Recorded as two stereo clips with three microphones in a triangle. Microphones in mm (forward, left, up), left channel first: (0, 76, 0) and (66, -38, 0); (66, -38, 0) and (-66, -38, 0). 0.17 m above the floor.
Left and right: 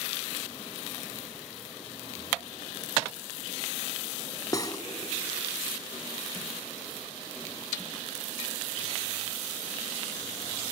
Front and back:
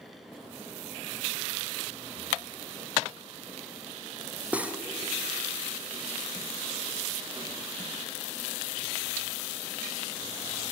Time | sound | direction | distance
4.5 | cutlery clinking | 115° left | 0.6 m